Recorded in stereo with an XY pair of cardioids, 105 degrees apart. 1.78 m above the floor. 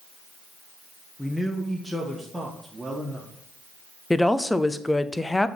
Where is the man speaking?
15° left, 1.4 m; by 3.3 s 25° right, 1.7 m.